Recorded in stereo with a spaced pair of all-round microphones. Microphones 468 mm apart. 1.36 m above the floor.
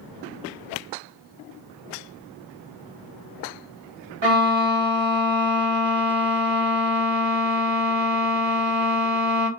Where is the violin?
70° right (ahead or behind), 0.8 m.